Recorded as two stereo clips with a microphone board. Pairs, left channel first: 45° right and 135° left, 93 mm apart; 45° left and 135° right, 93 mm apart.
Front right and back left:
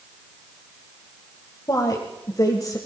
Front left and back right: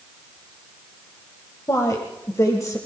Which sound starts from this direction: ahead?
A woman speaking, at 1.7 s.